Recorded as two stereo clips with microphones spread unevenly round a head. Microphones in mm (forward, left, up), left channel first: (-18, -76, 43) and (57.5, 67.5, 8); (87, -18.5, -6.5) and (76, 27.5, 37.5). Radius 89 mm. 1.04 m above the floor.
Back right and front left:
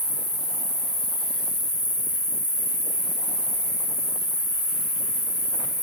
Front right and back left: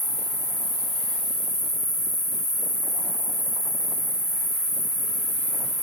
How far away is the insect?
About 1.6 m.